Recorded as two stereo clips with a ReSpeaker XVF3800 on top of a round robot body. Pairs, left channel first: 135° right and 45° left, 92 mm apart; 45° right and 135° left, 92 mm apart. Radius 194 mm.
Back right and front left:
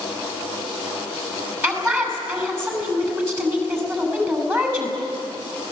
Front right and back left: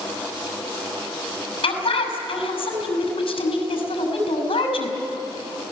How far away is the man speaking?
About 6 m.